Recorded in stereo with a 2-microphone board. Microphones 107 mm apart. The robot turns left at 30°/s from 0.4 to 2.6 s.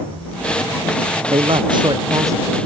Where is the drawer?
I don't hear a drawer.